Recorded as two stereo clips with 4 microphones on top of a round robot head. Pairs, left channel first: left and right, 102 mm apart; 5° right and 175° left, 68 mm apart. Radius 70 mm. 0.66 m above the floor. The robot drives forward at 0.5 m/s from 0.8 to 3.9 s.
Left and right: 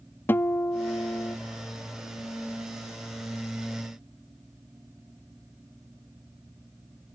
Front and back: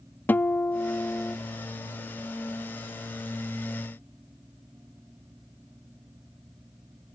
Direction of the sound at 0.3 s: 35° left.